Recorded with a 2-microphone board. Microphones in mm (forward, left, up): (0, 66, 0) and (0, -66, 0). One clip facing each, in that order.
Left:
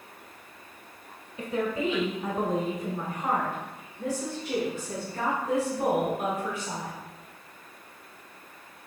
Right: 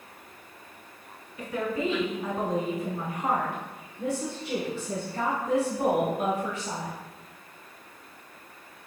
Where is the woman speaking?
25° left (ahead or behind), 1.1 m; by 6.9 s 40° right (ahead or behind), 3 m.